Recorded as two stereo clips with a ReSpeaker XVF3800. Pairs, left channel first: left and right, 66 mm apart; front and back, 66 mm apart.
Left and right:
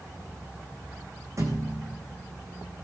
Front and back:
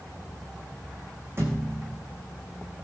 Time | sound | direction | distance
1.4 | a thud | 130° right | 3.5 m